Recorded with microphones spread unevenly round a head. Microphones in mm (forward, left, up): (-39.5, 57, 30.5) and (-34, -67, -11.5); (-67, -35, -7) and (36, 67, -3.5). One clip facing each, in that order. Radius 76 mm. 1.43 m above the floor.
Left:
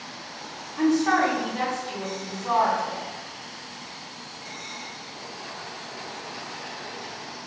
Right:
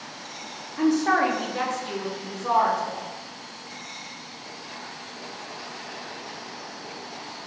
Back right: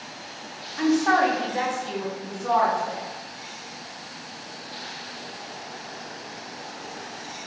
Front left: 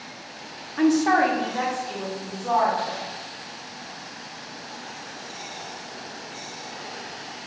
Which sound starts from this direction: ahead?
A woman speaking, at 0.8 s.